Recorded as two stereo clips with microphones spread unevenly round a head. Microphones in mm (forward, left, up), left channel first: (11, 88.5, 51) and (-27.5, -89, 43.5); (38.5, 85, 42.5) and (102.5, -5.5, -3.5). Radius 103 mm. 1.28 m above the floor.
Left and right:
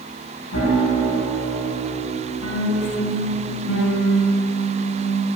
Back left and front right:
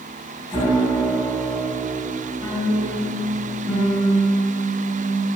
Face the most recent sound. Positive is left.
turn(degrees=75)